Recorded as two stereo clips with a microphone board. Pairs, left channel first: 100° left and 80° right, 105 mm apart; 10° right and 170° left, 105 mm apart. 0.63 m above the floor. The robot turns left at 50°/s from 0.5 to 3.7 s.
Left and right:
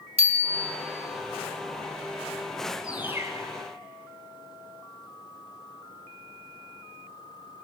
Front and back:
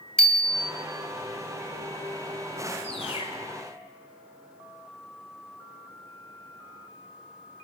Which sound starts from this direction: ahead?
A bird, at 2.8 s.